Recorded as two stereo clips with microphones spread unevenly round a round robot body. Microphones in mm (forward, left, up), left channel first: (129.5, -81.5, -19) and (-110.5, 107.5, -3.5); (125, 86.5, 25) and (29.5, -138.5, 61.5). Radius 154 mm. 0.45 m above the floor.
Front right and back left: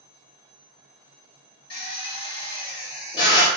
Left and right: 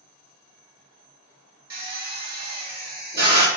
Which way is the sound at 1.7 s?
90° right.